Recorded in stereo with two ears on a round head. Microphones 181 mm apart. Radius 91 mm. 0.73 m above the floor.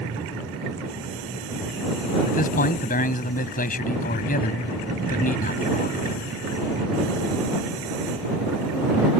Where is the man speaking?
45° left (ahead or behind).